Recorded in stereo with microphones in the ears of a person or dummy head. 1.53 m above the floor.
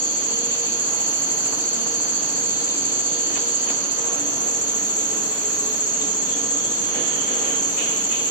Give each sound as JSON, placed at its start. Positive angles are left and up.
{"t": 0.0, "sound": "an insect", "side_deg": 15, "distance_m": 0.9}